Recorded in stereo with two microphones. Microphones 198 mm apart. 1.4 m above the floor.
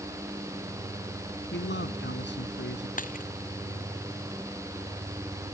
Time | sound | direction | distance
1.5 | a man speaking | 70° left (ahead or behind) | ?
3.0 | a dropped coin | 45° left (ahead or behind) | ?